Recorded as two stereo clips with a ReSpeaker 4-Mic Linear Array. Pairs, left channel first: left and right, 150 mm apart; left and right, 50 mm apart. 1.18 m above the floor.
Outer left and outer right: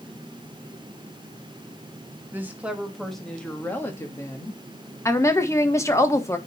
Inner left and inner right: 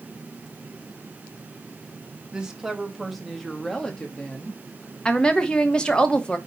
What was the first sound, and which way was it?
A woman speaking, 15° right (ahead or behind).